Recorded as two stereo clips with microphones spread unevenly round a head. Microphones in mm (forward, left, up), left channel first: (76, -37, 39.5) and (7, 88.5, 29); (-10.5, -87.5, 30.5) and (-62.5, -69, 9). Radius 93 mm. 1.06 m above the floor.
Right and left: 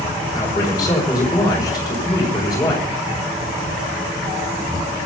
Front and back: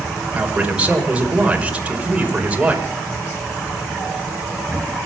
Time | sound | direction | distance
0.3 | a man speaking | 130° right | 5 m